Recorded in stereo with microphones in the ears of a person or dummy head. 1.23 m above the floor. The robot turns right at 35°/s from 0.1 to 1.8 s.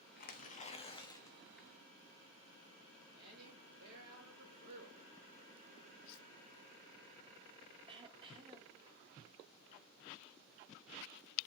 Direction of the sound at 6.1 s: 70° left (ahead or behind).